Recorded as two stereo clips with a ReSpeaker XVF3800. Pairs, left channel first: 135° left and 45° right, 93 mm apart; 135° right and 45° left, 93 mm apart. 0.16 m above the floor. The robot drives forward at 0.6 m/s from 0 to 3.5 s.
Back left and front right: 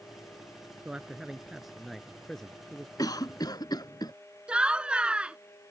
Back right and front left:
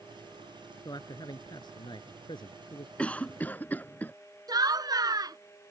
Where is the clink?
I don't hear a clink.